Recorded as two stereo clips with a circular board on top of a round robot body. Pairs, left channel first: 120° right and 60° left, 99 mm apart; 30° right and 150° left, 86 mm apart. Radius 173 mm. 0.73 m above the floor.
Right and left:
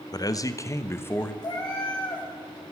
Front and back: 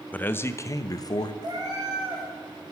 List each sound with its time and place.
0.1 s a man speaking: 95° right, 0.8 m; by 1.3 s 55° right, 1.1 m
1.4 s a cat meowing: 170° right, 4.5 m